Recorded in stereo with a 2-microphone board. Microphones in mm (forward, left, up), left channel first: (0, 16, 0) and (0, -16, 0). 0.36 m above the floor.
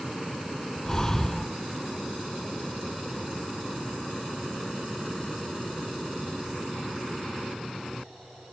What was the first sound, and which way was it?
Breathing, 20° left (ahead or behind).